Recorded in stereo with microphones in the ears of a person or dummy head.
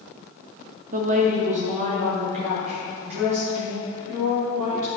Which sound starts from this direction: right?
A woman speaking, at 0.9 s.